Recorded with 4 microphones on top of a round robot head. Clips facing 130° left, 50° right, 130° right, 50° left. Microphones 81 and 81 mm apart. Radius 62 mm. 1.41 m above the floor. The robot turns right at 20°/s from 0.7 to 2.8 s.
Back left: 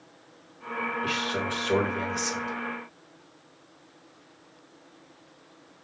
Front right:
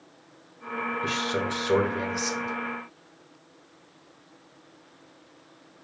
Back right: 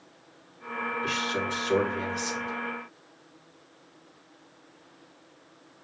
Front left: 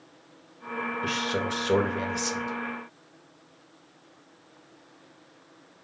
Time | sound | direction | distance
1.0 | a man speaking | 10° left | 0.9 m